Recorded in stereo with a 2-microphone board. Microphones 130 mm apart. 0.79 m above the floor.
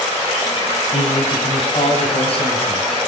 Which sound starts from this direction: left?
A man speaking, at 0.9 s.